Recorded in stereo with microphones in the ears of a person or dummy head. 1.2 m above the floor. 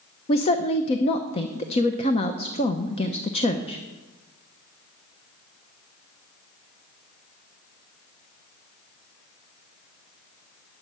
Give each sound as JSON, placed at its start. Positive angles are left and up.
{"t": 0.3, "sound": "a woman speaking", "side_deg": 35, "distance_m": 0.7}